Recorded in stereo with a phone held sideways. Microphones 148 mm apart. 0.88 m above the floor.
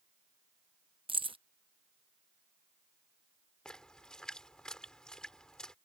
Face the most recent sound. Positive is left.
turn(degrees=5)  # may be behind; listen again after turning